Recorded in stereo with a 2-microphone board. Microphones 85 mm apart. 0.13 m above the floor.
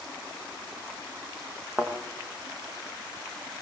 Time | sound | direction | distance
1.8 | a thud | 20° right (ahead or behind) | 4.5 m